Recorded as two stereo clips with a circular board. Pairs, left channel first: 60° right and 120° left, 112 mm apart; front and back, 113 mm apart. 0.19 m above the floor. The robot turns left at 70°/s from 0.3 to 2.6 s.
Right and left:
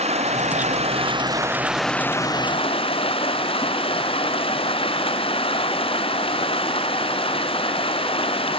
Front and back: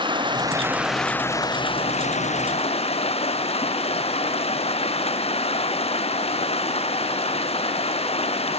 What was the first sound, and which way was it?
Running water, 135° left.